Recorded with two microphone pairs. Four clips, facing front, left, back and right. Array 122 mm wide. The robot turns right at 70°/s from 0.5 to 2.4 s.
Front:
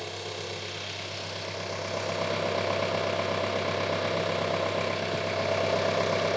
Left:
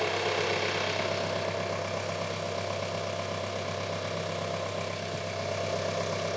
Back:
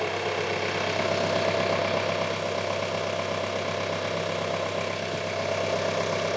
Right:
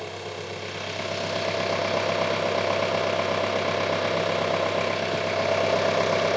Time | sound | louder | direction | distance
0.0 | an engine running | left 5 dB, back 9 dB | 140° left | 0.8 m